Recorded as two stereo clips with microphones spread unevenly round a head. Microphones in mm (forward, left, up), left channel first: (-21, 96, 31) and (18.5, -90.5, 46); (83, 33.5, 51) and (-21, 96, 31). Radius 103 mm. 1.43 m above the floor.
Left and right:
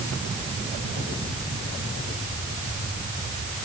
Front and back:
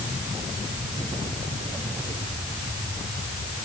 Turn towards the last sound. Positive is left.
No sound to turn to.